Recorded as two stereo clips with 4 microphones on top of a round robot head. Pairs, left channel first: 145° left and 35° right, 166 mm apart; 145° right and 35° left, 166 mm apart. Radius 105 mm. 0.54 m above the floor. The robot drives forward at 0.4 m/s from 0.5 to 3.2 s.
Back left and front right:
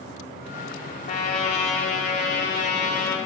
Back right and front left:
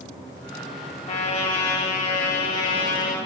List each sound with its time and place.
1.1 s a trumpet: straight behind, 1.6 m